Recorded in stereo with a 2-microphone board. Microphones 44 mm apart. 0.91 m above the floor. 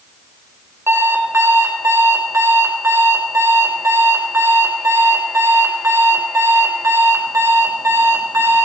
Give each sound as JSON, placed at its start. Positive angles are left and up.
{"t": 0.9, "sound": "an alarm clock", "side_deg": -75, "distance_m": 2.0}